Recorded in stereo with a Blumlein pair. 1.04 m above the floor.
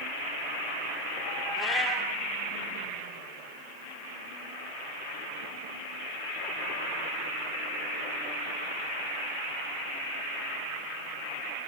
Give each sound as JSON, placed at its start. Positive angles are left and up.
{"t": 1.6, "sound": "a cat meowing", "azimuth_deg": 10, "distance_m": 3.5}